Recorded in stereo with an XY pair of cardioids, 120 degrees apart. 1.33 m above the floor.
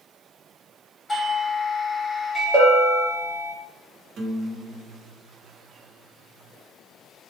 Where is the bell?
50° right, 1.3 m.